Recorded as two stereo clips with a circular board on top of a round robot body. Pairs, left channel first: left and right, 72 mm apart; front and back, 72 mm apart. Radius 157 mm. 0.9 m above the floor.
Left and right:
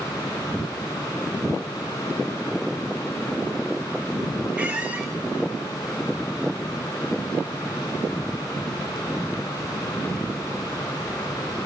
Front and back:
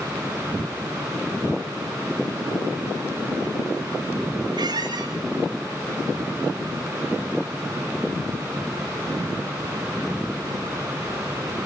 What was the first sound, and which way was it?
A squeak, 160° right.